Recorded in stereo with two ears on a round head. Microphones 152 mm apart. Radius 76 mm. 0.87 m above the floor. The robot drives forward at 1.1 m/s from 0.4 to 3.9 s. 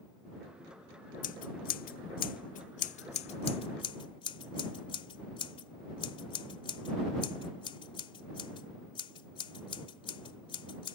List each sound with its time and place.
1.2 s scissors: 50° left (ahead or behind); by 11.0 s 35° left (ahead or behind)